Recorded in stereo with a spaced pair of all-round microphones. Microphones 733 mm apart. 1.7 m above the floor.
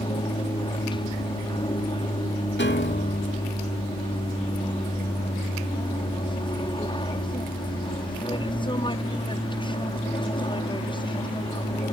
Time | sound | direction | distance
0.0 | an aircraft | 5° left (ahead or behind) | ?
2.6 | a piano | 15° left (ahead or behind) | ?